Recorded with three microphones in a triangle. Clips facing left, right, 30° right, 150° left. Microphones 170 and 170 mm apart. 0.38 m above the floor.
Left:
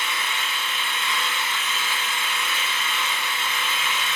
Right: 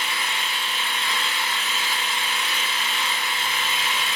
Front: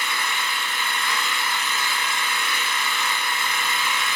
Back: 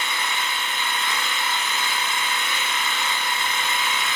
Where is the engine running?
140° right, 0.9 m.